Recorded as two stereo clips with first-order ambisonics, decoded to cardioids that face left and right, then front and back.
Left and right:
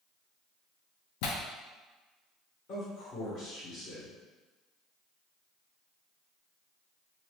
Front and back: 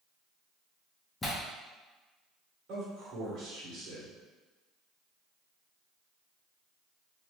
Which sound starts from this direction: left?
Tearing paper, at 1.2 s.